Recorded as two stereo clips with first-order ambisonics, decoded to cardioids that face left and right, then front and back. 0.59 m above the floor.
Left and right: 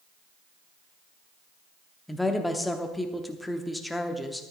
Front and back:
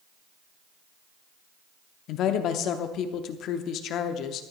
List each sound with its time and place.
2.1 s a woman speaking: 5° left, 0.9 m